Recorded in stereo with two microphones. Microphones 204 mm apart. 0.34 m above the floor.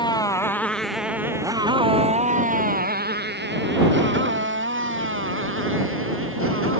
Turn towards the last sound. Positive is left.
turn(degrees=-75)  # may be behind; listen again after turning